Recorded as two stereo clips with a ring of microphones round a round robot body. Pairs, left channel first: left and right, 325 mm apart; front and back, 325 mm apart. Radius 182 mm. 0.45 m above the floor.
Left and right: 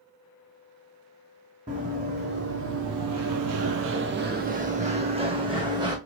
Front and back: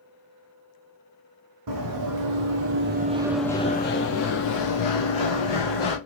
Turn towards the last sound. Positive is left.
turn(degrees=-10)